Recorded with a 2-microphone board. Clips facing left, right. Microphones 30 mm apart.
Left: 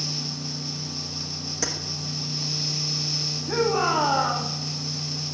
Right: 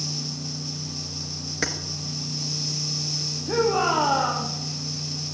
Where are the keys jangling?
45° right (ahead or behind), 1.4 m.